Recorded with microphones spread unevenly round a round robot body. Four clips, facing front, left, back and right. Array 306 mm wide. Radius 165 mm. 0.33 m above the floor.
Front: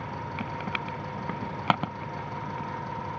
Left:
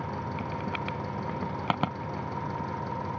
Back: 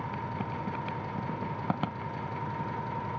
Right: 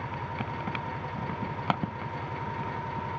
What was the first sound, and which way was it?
An engine running, 85° left.